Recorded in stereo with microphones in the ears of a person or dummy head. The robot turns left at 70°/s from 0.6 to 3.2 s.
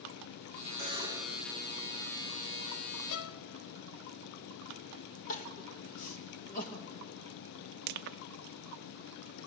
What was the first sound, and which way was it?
A buzzer, 135° right.